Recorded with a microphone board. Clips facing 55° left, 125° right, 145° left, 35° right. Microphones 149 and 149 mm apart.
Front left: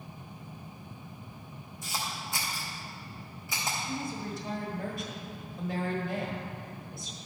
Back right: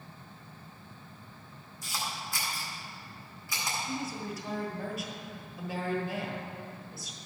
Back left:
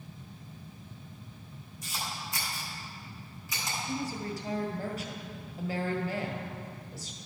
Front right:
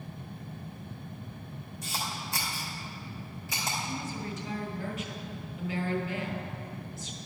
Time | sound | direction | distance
1.8 | a camera shutter | 10° right | 3 m
3.9 | a woman speaking | 150° left | 1.4 m